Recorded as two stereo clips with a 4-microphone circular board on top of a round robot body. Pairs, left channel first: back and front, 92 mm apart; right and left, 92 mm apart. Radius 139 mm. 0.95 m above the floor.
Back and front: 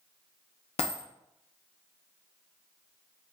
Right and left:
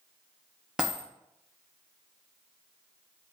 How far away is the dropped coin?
About 0.5 m.